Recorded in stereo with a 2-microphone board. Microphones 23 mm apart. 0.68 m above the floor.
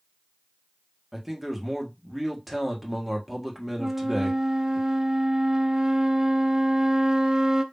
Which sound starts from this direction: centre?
A man speaking, at 1.1 s.